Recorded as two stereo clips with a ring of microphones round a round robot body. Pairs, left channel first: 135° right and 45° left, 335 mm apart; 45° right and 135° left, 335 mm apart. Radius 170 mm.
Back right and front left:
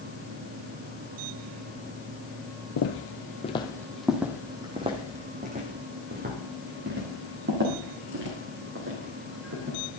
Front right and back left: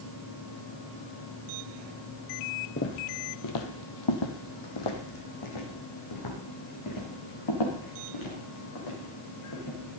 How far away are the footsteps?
About 1.2 m.